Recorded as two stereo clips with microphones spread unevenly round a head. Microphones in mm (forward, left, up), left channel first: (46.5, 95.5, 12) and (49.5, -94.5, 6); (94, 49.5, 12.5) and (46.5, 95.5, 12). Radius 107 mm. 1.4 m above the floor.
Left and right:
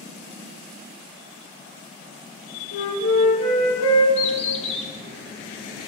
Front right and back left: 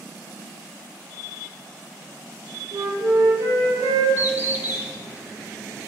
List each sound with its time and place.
2.7 s a flute: 115° left, 3 m
4.2 s a bird: 115° left, 1.2 m